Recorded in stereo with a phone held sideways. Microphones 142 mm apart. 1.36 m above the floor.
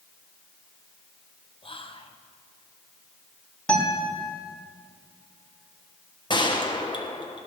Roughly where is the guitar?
Centre.